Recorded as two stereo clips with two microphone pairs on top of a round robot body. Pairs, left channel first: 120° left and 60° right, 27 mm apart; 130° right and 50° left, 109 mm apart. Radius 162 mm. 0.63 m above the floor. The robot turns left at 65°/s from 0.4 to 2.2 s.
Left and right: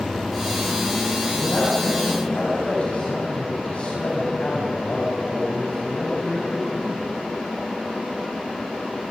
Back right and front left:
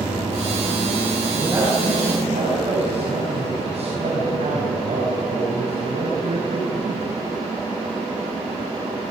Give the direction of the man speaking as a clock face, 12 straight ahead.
8 o'clock.